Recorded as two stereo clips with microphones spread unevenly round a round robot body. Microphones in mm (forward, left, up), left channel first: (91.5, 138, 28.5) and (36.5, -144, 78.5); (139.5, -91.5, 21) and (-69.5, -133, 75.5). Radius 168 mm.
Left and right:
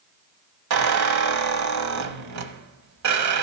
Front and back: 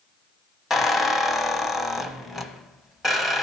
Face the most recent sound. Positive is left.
turn(degrees=-75)